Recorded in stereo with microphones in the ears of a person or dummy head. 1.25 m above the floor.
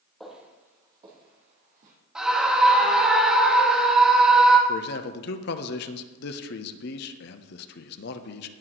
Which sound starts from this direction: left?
A man speaking, at 4.7 s.